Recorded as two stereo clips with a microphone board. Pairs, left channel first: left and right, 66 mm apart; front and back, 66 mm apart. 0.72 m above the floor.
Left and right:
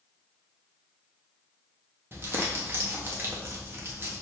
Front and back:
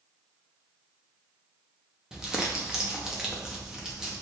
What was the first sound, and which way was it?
Crumpling, 105° right.